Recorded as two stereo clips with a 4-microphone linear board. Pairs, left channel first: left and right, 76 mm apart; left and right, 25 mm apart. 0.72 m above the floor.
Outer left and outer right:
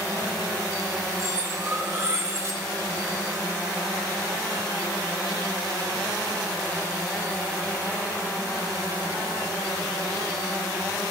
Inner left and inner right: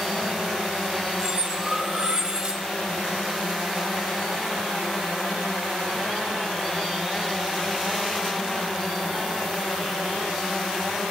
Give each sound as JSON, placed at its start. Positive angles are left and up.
{"t": 1.2, "sound": "cutlery clinking", "side_deg": -40, "distance_m": 0.8}